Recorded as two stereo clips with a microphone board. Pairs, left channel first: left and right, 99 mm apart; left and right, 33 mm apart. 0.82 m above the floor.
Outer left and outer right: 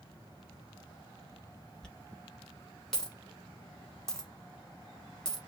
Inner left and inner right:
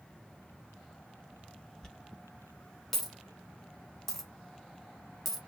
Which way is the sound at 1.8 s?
5° left (ahead or behind).